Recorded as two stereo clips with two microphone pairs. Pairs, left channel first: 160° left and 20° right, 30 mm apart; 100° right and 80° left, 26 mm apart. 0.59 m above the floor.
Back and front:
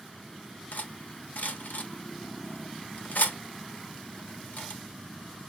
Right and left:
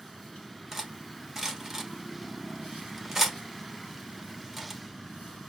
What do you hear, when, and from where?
0.7 s cutlery clinking: 155° left, 1.0 m